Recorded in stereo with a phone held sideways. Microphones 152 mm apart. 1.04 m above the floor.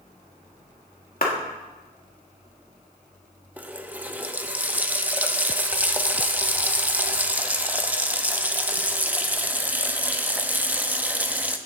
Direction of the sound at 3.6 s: 10° right (ahead or behind).